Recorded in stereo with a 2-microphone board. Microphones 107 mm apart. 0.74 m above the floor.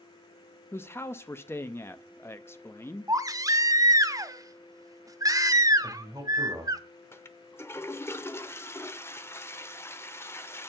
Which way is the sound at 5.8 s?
40° right (ahead or behind).